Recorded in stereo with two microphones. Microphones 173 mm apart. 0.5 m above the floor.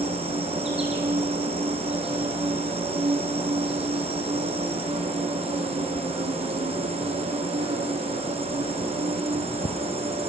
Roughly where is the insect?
Right.